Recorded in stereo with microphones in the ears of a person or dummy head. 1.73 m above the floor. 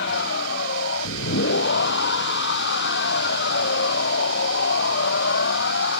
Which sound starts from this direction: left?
A machine running, at 0.0 s.